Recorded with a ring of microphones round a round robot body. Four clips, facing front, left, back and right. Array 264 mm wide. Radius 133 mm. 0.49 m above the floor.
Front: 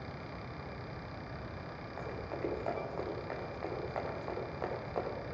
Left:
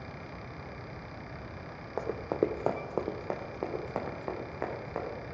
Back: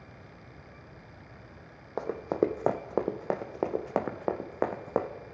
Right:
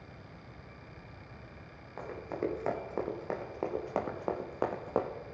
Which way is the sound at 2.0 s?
145° left.